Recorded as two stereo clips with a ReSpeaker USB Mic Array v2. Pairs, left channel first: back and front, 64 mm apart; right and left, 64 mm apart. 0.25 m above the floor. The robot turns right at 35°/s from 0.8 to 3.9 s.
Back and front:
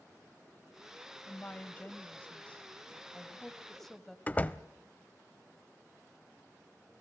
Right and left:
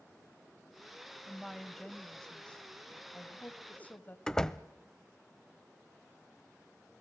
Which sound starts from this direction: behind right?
A door slam, at 4.3 s.